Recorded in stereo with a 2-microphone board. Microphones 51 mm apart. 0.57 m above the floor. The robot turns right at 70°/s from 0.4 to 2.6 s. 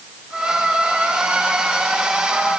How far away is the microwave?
No microwave in this recording.